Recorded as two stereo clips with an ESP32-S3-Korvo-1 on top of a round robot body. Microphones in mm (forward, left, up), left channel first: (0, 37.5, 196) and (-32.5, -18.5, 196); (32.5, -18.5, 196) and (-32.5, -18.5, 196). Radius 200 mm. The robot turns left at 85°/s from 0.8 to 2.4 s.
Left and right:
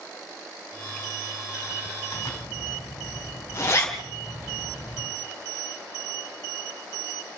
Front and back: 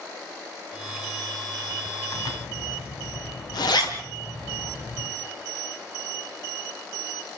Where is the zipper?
30° left, 3.5 m; by 5.1 s 5° left, 3.5 m.